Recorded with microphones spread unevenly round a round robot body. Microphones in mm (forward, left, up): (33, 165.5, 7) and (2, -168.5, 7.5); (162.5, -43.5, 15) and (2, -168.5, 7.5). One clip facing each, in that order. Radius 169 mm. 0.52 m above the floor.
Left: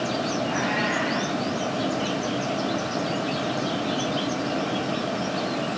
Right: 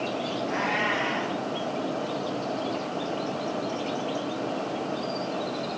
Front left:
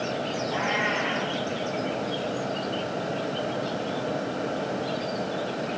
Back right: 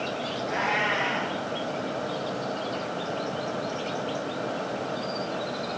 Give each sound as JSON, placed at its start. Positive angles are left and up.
{"t": 0.4, "sound": "a cat meowing", "azimuth_deg": 165, "distance_m": 4.0}